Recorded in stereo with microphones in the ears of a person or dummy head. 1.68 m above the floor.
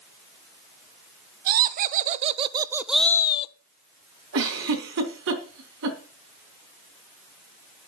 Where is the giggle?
60° right (ahead or behind), 3.5 m.